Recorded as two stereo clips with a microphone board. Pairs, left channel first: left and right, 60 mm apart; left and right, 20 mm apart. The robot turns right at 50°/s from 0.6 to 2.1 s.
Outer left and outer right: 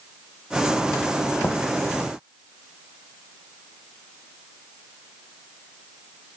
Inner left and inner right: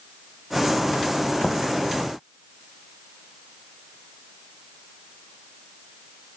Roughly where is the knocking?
Left.